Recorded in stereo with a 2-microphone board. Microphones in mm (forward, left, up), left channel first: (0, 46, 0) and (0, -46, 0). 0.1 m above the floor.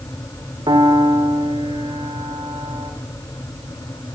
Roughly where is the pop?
I don't hear a pop.